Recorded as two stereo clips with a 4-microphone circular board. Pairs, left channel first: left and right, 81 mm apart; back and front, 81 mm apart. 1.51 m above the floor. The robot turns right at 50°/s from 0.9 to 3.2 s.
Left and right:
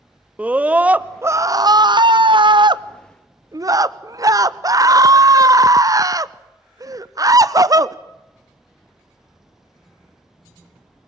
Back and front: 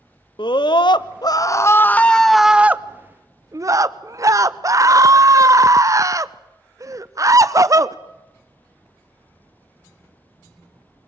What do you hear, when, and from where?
0.4 s a scream: 160° right, 0.8 m; by 8.0 s 45° right, 0.8 m